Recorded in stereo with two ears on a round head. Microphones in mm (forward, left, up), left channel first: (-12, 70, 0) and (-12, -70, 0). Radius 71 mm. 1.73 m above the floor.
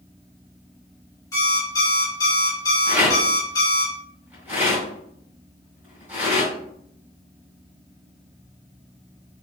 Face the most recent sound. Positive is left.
turn(degrees=-10)  # may be behind; listen again after turning